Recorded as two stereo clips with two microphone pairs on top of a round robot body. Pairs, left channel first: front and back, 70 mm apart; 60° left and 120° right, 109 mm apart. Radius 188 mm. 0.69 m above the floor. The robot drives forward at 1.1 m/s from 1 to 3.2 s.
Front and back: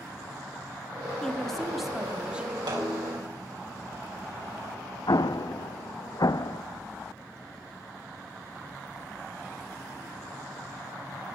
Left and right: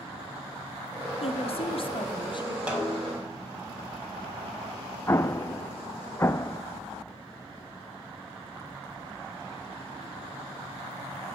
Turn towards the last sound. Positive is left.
turn(degrees=-5)